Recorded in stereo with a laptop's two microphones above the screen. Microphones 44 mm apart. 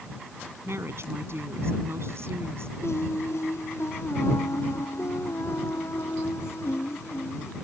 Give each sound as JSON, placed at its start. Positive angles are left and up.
{"t": 0.6, "sound": "a woman speaking", "side_deg": -65}
{"t": 2.8, "sound": "singing", "side_deg": 80}